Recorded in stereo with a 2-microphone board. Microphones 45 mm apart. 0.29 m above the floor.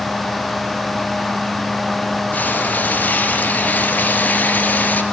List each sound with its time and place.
2.3 s frying: 40° left (ahead or behind), 3 m